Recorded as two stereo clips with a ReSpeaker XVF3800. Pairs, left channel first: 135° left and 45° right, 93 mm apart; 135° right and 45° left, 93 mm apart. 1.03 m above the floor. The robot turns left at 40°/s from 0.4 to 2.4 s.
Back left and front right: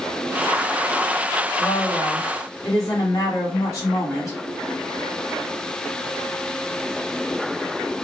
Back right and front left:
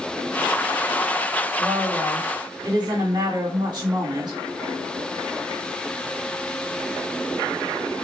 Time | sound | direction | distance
1.6 | a woman speaking | 115° left | 1.6 m